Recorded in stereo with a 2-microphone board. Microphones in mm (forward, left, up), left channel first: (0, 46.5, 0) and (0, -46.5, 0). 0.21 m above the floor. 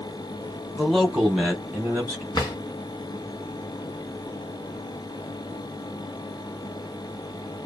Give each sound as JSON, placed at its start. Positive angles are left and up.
{"t": 0.8, "sound": "a man speaking", "side_deg": 5, "distance_m": 1.0}
{"t": 2.3, "sound": "a drawer", "side_deg": 50, "distance_m": 1.2}